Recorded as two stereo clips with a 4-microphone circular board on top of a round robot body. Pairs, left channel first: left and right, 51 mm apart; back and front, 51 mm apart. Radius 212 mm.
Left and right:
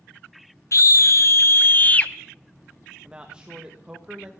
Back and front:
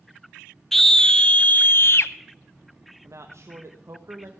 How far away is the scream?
About 1.2 m.